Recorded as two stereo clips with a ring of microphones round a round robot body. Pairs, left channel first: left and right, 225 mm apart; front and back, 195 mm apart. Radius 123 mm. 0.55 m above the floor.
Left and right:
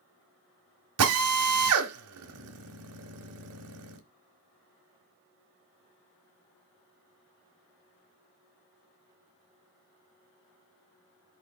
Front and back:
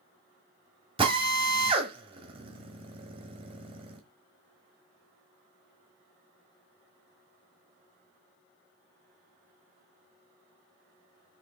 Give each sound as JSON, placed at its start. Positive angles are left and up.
{"t": 1.0, "sound": "a drill", "azimuth_deg": -110, "distance_m": 1.6}